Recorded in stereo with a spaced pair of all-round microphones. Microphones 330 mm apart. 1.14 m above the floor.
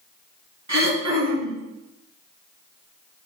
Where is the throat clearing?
55° right (ahead or behind), 1.5 m.